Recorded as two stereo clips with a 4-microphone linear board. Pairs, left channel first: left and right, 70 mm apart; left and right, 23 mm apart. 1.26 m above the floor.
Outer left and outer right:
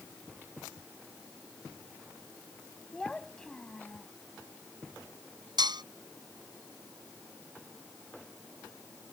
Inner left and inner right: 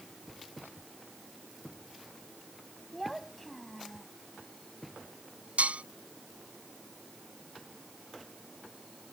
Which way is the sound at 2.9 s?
10° left (ahead or behind).